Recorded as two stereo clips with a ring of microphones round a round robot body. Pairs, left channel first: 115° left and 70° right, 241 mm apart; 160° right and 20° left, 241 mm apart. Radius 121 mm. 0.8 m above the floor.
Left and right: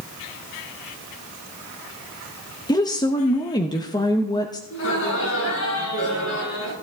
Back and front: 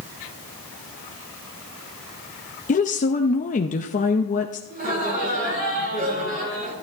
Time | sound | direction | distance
2.7 | a woman speaking | 175° left | 0.8 m
4.7 | laughter | 75° left | 8 m